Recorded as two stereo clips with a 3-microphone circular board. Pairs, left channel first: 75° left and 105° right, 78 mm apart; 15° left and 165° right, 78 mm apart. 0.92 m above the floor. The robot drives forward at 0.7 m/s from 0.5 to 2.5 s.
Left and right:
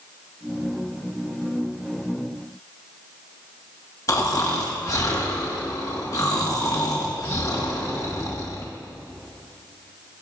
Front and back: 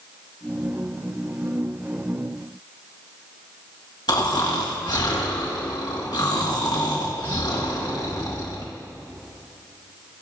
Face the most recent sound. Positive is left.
turn(degrees=30)